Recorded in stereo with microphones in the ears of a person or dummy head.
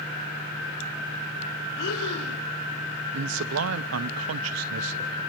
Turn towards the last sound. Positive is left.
turn(degrees=-80)